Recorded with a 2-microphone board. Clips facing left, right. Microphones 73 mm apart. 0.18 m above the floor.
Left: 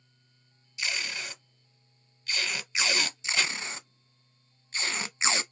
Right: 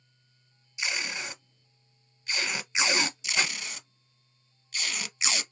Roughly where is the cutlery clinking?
No cutlery clinking in this recording.